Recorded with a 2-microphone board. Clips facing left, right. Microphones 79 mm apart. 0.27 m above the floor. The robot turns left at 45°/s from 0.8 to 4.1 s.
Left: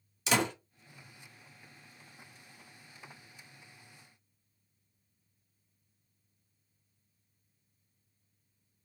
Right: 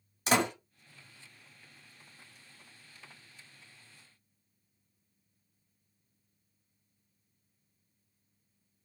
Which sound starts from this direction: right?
A door slam, at 0.3 s.